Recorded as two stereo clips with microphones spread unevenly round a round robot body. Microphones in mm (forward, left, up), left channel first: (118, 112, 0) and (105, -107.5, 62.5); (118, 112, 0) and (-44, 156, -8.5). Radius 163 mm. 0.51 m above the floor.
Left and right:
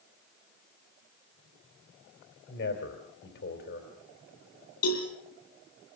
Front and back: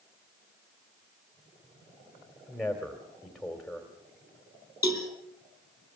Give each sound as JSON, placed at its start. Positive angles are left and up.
{"t": 2.5, "sound": "a man speaking", "azimuth_deg": 75, "distance_m": 3.0}
{"t": 4.8, "sound": "a cowbell", "azimuth_deg": 90, "distance_m": 7.0}